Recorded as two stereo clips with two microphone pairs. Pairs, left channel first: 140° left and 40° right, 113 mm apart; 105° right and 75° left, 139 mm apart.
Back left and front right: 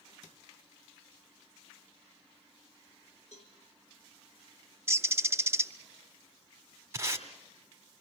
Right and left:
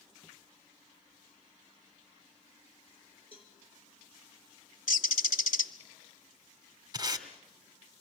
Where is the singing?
I don't hear singing.